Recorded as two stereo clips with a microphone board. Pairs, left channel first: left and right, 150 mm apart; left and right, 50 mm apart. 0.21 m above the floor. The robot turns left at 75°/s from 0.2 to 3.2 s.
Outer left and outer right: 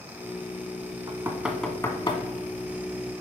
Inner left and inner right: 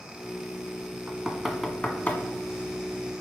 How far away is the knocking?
About 1.1 m.